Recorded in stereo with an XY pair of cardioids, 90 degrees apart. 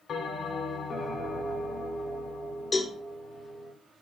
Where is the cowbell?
40° left, 0.8 m.